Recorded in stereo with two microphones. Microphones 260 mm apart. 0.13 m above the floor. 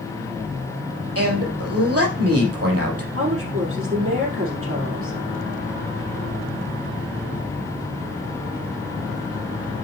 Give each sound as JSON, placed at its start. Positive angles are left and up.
{"t": 1.1, "sound": "a man speaking", "side_deg": -60, "distance_m": 4.0}
{"t": 3.1, "sound": "a woman speaking", "side_deg": -55, "distance_m": 4.0}